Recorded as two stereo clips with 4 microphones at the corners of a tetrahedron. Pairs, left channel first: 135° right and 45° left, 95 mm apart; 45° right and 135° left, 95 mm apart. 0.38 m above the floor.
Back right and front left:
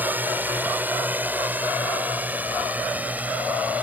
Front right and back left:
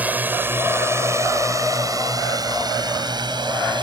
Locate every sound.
0.0 s a drone: 85° left; by 3.9 s 115° left